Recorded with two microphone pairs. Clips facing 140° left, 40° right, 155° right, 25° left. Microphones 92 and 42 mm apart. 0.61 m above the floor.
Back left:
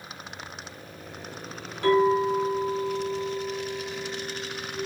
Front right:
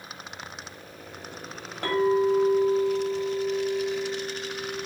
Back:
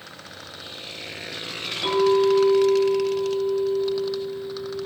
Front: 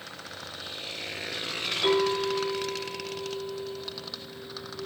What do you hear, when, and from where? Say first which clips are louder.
1.8 s a clink: back left 1 dB, back 7 dB; 80° right, 1.5 m